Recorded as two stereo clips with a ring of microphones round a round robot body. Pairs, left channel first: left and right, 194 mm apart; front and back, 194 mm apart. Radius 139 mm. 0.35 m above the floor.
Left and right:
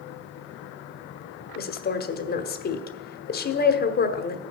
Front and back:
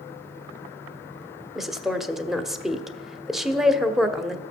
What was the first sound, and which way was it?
A woman speaking, 90° left.